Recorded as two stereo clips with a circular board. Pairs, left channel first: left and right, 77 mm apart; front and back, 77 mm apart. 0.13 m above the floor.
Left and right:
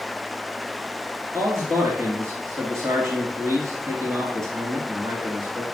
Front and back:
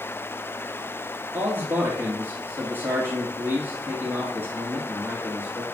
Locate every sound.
1.3 s a man speaking: 125° right, 1.7 m